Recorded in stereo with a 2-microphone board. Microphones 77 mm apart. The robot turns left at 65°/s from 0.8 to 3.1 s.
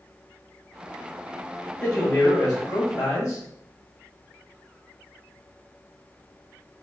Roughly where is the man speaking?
Behind.